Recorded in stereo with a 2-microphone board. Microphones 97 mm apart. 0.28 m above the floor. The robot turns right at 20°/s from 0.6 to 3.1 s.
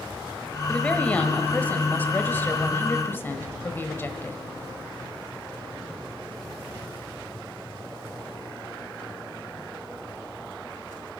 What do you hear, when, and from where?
0.7 s a woman speaking: 10° left (ahead or behind), 1.1 m; by 4.4 s 25° left (ahead or behind), 1.1 m